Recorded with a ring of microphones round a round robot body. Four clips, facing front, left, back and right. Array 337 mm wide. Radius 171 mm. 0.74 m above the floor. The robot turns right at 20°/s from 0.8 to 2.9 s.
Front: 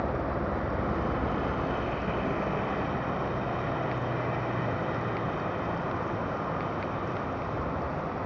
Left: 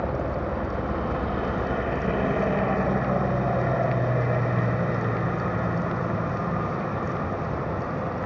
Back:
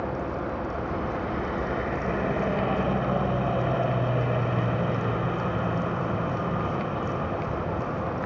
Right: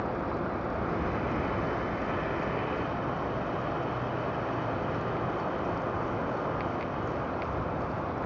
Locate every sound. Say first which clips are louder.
0.0 s a helicopter: left 4 dB, even; 80° left; by 8.3 s 125° left